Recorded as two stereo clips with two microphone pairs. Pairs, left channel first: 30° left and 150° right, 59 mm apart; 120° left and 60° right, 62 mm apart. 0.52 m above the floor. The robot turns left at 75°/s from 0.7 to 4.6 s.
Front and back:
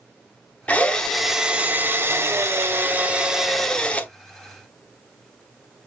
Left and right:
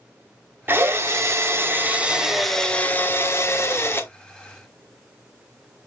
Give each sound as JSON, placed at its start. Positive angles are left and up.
{"t": 0.7, "sound": "a drill", "azimuth_deg": -25, "distance_m": 0.9}